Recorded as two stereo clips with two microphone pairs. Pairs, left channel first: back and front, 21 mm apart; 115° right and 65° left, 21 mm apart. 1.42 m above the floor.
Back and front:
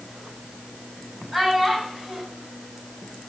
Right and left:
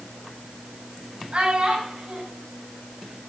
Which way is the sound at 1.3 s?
80° left.